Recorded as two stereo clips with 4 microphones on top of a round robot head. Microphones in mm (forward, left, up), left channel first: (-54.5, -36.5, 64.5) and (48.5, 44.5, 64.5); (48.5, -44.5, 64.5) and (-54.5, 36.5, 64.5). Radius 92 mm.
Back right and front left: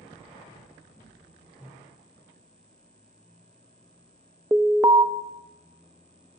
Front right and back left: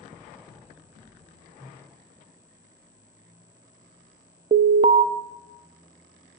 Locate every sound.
1.6 s a whoosh: 75° left, 3 m
4.5 s an alarm: 105° left, 0.5 m